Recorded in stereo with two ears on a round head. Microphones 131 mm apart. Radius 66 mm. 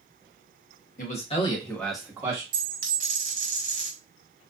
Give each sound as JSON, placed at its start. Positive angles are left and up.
{"t": 1.0, "sound": "a man speaking", "side_deg": 55, "distance_m": 1.1}
{"t": 2.5, "sound": "a dropped coin", "side_deg": -60, "distance_m": 1.1}